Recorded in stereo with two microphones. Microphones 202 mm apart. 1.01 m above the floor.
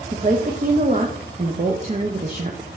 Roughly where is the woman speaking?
Right.